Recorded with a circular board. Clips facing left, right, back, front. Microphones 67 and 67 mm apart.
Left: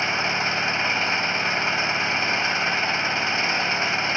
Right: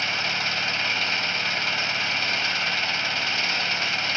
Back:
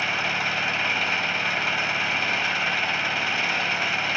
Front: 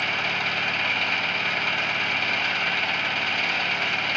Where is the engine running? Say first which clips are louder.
Left 3 dB, back 1 dB; 105° left, 0.7 m.